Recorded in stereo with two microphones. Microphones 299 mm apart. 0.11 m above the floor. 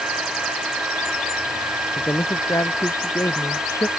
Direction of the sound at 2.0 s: 10° left (ahead or behind).